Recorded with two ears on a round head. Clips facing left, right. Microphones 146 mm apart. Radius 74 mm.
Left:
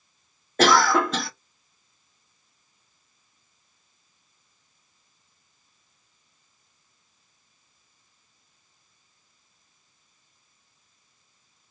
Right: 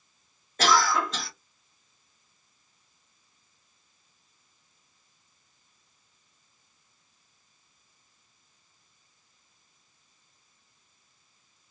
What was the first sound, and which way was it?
A cough, 50° left (ahead or behind).